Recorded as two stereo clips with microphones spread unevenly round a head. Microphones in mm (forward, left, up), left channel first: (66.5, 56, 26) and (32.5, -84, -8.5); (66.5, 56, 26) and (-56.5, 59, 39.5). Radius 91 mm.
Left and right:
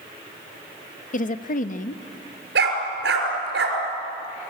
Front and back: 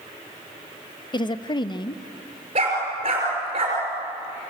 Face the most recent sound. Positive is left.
turn(degrees=-125)